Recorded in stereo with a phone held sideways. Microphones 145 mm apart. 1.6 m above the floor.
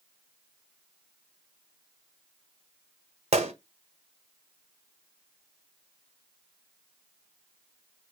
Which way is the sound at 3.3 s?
45° right (ahead or behind).